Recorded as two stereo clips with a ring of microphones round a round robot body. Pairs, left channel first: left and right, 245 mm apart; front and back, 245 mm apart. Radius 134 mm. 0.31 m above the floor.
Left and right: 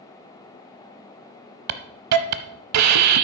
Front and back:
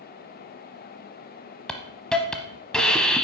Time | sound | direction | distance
1.7 | a hiss | 85° right | 0.8 m